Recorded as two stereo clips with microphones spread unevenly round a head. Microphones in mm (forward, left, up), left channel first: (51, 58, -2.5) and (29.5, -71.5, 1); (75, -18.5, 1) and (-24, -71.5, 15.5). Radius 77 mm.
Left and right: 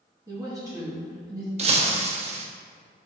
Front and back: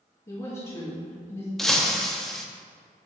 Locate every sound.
0.3 s a woman speaking: 30° right, 2 m
1.6 s breaking glass: 60° right, 1.0 m